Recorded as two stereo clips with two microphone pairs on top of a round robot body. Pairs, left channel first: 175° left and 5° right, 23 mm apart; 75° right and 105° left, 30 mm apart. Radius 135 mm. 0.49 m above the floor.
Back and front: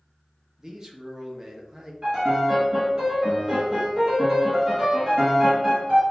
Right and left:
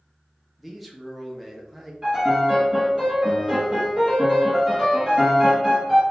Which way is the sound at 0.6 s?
Straight ahead.